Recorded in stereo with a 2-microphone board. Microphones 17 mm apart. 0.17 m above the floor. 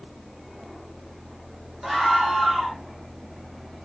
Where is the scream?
20° right (ahead or behind), 7.5 m.